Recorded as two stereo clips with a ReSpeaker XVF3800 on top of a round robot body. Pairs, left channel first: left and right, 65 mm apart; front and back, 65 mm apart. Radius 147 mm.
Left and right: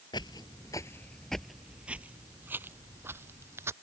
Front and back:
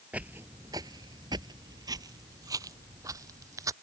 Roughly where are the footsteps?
Left.